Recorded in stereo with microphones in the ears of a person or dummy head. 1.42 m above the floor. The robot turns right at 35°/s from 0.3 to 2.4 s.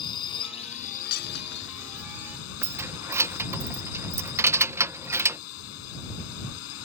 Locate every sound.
0.0 s a drone: 25° left; by 6.8 s 100° left
1.1 s breaking glass: 55° left (ahead or behind); by 2.3 s 85° left
2.6 s keys jangling: 15° right (ahead or behind)